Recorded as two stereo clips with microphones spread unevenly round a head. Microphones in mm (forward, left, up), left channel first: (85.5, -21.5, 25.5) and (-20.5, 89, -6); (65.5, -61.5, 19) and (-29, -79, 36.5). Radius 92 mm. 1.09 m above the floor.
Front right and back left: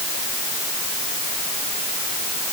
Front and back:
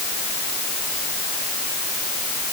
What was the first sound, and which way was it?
Only background noise.